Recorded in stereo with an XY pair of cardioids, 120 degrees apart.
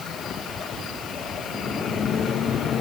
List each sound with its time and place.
Only background noise.